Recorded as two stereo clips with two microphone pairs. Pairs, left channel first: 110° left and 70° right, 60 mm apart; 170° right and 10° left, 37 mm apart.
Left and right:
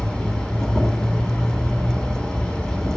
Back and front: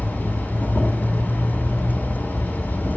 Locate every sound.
0.0 s an insect: 175° left, 3 m